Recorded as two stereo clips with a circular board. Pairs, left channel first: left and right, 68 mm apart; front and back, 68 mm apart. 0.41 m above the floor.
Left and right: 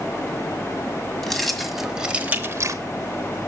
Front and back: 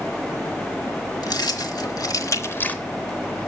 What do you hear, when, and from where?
1.2 s keys jangling: 5° left, 1.9 m; by 2.8 s 70° right, 0.8 m